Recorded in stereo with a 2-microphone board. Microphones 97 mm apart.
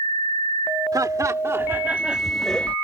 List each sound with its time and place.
0.9 s laughter: 40° right (ahead or behind); by 2.8 s 15° left (ahead or behind)